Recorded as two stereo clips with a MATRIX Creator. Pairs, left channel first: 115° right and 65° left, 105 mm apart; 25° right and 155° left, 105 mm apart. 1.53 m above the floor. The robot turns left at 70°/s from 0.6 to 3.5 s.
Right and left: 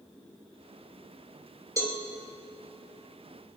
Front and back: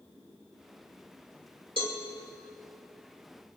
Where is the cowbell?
125° left, 2.5 m; by 2.0 s 110° left, 2.5 m.